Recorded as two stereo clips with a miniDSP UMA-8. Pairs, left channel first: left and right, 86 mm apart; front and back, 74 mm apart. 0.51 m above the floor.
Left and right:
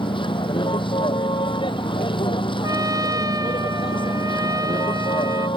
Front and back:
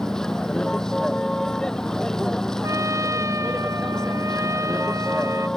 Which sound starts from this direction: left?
A vehicle, at 0.0 s.